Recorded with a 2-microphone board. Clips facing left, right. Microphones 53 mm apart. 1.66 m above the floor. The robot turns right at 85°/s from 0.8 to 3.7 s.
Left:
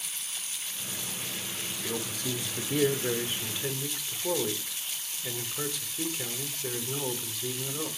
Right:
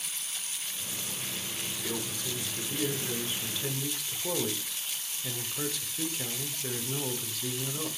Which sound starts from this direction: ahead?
A man speaking, at 1.8 s.